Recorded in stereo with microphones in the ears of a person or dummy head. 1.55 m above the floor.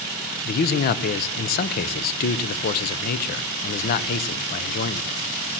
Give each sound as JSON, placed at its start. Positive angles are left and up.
{"t": 0.5, "sound": "a man speaking", "side_deg": 50, "distance_m": 0.6}